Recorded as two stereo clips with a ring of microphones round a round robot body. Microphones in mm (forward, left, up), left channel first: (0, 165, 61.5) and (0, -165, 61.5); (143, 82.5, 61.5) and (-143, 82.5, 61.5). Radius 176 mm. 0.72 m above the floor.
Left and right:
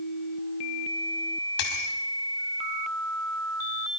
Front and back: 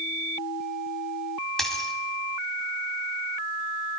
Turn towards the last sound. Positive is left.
turn(degrees=90)